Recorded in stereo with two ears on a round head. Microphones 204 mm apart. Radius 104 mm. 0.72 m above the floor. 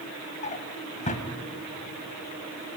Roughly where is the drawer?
Left.